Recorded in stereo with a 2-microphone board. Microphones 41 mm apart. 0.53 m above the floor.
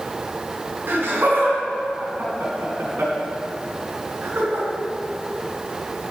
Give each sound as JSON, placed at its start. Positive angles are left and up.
{"t": 0.9, "sound": "laughter", "side_deg": -60, "distance_m": 4.0}